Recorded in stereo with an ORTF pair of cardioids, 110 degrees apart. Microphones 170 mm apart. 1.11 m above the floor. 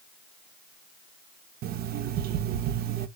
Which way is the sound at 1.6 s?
65° right.